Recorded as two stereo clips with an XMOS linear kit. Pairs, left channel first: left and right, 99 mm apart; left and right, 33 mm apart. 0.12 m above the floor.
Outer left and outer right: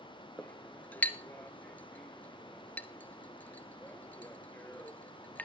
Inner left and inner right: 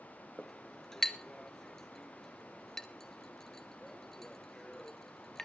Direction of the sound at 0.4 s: 15° left (ahead or behind).